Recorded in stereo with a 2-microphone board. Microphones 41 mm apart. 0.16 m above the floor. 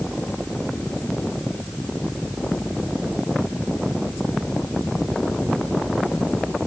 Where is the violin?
I don't hear a violin.